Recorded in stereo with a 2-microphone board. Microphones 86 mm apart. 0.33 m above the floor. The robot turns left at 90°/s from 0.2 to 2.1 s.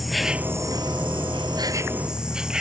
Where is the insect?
Straight ahead; by 2.6 s 170° right.